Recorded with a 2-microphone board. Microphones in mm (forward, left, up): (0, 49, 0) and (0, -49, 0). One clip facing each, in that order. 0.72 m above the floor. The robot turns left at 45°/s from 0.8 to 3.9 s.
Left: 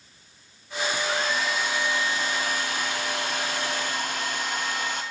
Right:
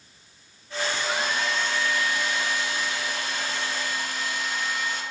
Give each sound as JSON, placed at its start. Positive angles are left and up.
{"t": 1.0, "sound": "a hair dryer", "azimuth_deg": -165, "distance_m": 1.1}